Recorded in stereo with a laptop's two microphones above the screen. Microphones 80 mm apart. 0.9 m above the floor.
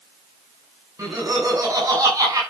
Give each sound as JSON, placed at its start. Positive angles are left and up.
{"t": 1.0, "sound": "laughter", "side_deg": -45, "distance_m": 8.0}